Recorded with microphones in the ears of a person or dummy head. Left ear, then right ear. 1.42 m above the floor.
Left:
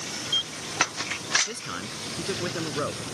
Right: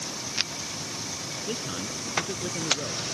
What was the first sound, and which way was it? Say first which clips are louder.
A man speaking: right 2 dB; 60° left (ahead or behind).